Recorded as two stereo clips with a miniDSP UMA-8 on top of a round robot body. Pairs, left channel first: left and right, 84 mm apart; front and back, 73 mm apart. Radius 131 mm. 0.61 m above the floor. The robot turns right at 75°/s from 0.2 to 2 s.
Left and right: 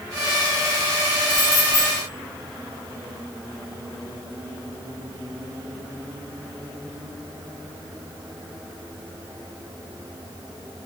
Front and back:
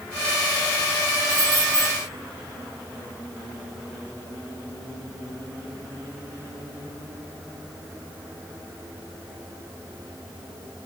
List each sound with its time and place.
1.3 s keys jangling: 95° left, 10 m; by 1.9 s 145° left, 10 m